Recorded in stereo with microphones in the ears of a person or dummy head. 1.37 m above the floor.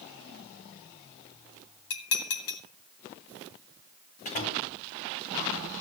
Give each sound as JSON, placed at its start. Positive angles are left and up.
{"t": 1.9, "sound": "dishes clattering", "side_deg": 80, "distance_m": 2.5}
{"t": 4.2, "sound": "a door slam", "side_deg": 40, "distance_m": 4.0}